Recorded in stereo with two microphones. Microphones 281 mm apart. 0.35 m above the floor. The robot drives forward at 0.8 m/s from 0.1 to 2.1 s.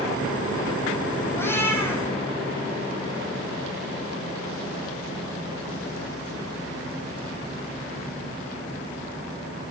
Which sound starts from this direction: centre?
A cat meowing, at 1.4 s.